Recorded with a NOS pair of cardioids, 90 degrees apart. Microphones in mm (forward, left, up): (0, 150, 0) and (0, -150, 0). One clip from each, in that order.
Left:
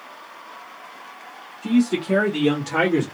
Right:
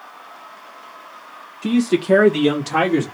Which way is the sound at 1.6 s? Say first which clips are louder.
Right 3 dB; 45° right.